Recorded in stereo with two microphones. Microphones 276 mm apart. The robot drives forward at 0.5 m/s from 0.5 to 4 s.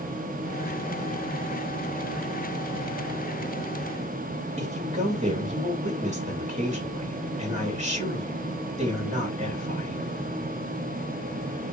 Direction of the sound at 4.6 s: 25° right (ahead or behind).